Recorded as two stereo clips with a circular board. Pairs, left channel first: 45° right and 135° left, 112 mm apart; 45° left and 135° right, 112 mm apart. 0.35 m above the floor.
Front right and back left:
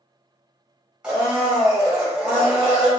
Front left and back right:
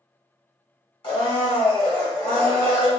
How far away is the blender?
About 1.3 m.